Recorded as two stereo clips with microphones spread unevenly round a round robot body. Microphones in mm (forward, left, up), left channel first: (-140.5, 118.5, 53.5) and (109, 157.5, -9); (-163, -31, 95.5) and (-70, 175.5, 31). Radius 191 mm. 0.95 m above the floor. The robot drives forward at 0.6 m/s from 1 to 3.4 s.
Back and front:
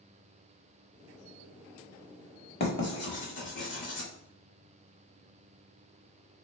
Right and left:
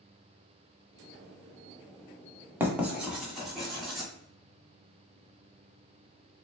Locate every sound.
2.6 s writing: 155° left, 1.4 m; by 4.1 s 160° left, 1.8 m